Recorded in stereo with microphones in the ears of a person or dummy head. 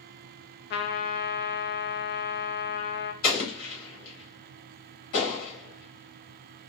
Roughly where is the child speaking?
I don't hear a child speaking.